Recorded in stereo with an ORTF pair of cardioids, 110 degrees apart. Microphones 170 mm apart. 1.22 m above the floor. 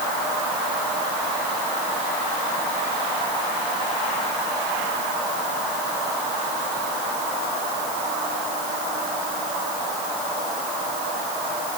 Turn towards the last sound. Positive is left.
No sound to turn to.